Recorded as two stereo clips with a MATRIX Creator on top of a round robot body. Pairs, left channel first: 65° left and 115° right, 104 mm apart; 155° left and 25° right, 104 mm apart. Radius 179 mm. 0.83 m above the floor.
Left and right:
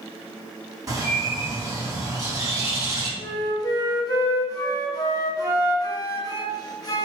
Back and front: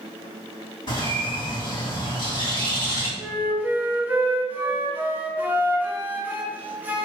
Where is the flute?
45° left, 0.9 m.